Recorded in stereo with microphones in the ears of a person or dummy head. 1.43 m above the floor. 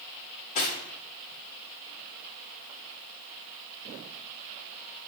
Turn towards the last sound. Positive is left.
turn(degrees=40)  # may be behind; listen again after turning